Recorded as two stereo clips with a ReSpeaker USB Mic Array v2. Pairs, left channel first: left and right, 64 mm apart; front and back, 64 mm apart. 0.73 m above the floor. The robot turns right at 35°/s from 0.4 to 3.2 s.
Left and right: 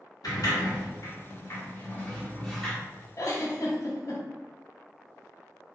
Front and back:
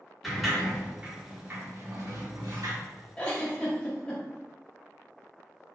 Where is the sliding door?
90° left, 1.0 m; by 2.8 s 170° left, 1.0 m.